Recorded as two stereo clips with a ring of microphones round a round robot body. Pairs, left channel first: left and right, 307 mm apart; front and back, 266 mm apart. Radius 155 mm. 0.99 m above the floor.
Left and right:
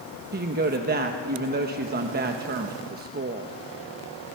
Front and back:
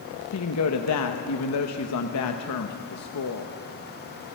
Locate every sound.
0.3 s a woman speaking: 30° right, 1.0 m